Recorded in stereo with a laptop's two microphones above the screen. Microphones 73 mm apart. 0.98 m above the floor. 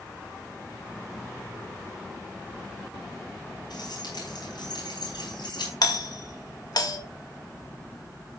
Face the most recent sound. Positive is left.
turn(degrees=60)  # may be behind; listen again after turning